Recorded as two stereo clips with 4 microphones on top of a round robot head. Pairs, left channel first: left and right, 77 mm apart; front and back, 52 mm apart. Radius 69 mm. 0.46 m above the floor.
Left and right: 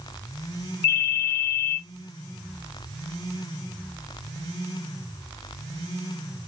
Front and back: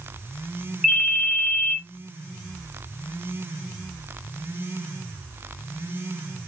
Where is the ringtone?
105° left, 2 m.